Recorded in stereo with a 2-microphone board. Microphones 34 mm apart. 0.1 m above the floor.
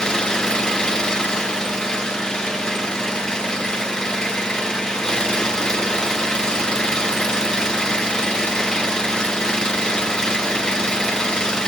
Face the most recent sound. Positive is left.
turn(degrees=20)  # may be behind; listen again after turning